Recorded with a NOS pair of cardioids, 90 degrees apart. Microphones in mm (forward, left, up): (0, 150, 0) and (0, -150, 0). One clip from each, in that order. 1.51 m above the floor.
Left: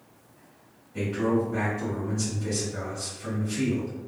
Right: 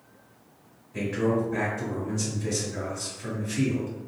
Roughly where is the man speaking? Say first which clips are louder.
Even; ahead right.